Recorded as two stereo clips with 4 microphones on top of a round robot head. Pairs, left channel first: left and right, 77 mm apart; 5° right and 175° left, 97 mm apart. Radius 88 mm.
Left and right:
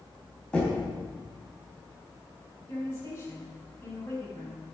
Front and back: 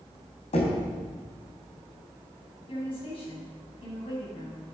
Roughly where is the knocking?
Ahead.